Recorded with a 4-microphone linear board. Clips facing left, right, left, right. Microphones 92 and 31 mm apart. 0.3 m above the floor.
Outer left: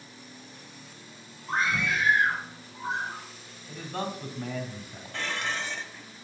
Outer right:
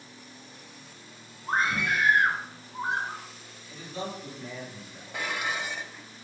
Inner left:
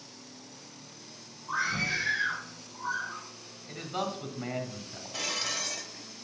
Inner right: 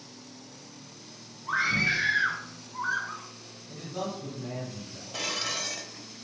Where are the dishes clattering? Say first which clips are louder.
Outer right 1 dB, inner right 1 dB; 10° right (ahead or behind), 0.8 m.